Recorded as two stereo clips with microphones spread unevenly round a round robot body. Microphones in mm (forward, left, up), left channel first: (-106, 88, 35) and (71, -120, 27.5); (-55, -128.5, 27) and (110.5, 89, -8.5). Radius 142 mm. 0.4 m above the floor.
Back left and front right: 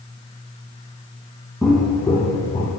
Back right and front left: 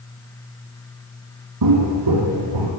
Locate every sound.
1.6 s footsteps: 40° left, 1.2 m; by 2.7 s 55° left, 1.7 m